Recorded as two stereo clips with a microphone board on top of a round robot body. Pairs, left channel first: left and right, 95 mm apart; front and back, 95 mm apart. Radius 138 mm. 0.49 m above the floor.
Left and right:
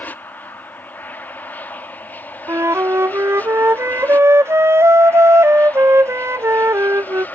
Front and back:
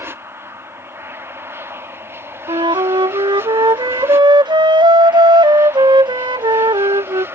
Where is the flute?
150° right.